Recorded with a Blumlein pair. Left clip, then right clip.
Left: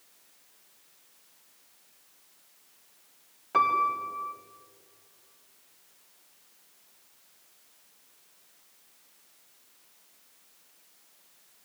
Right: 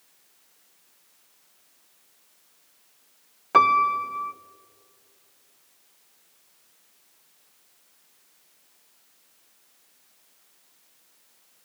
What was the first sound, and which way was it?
A piano, 65° right.